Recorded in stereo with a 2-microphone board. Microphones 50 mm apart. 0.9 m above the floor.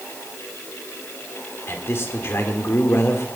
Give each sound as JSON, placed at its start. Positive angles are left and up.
{"t": 1.7, "sound": "a man speaking", "side_deg": 50, "distance_m": 2.0}